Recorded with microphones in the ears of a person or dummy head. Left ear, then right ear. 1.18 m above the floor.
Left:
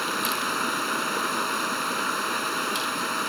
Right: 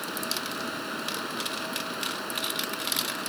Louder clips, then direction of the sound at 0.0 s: Left 6 dB; 40° left (ahead or behind).